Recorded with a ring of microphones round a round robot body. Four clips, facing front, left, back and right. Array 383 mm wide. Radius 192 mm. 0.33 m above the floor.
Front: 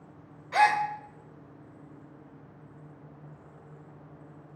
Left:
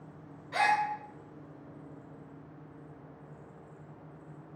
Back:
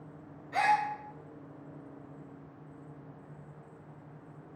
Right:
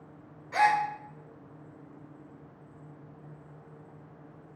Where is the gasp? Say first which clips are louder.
Right 3 dB, front 4 dB; 5° right, 0.5 m.